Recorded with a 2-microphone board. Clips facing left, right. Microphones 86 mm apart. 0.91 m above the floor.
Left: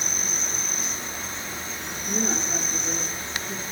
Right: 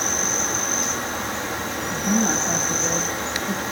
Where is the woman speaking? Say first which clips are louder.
Right 7 dB; 70° right (ahead or behind), 6 m.